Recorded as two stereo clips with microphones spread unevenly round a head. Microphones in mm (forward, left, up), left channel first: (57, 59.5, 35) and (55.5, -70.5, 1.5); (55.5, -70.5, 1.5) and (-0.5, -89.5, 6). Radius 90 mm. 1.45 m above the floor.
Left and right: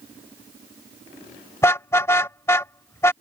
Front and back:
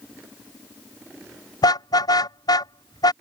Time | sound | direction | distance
1.6 | a car horn | 25° left | ?